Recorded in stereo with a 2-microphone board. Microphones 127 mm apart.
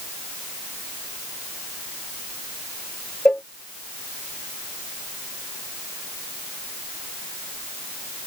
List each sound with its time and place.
3.2 s a cowbell: 5° left (ahead or behind)